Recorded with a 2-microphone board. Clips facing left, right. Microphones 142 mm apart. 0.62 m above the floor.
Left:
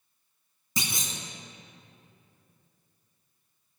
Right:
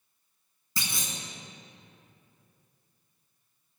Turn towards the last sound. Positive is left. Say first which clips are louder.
# left 3 dB
turn(degrees=20)  # may be behind; listen again after turning